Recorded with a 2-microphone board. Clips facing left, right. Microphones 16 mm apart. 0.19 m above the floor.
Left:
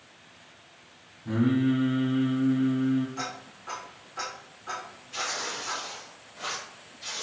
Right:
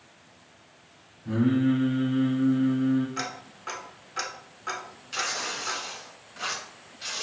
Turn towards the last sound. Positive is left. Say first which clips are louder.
# right 2 dB
turn(degrees=-40)  # may be behind; listen again after turning